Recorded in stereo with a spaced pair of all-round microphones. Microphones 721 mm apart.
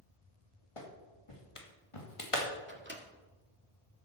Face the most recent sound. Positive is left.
turn(degrees=-15)  # may be behind; listen again after turning